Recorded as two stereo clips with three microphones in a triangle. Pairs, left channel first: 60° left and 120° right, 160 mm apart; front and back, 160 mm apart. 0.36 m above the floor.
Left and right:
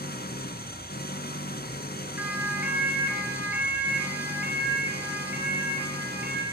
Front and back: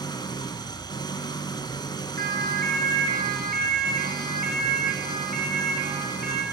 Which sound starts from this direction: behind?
A siren, at 2.2 s.